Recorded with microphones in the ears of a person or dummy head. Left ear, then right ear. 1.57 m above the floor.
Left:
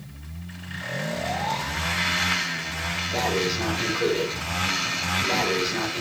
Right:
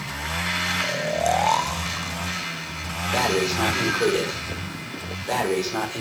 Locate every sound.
0.8 s snoring: 45° right (ahead or behind), 0.8 m
3.1 s breathing: 50° right (ahead or behind), 4 m